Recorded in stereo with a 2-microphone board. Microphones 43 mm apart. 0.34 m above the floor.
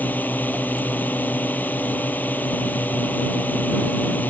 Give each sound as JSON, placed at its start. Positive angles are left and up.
{"t": 0.0, "sound": "a drone", "side_deg": 40}